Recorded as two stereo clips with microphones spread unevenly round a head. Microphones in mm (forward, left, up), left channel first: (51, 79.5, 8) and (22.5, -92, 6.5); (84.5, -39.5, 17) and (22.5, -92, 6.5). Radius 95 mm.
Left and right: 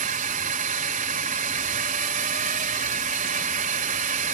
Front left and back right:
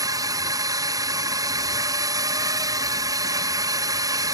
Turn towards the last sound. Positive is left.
turn(degrees=-130)